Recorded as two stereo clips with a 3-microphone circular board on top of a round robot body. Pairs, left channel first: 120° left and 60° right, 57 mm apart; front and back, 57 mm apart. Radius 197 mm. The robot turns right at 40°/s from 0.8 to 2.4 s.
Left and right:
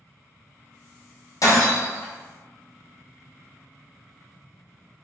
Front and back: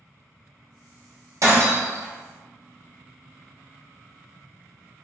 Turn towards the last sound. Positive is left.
turn(degrees=-175)